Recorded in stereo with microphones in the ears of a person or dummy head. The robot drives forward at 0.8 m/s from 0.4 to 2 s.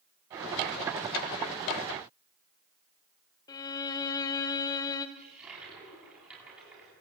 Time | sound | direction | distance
3.5 | a violin | 25° left (ahead or behind) | 1.2 m
5.2 | a toilet flushing | 5° right (ahead or behind) | 9.5 m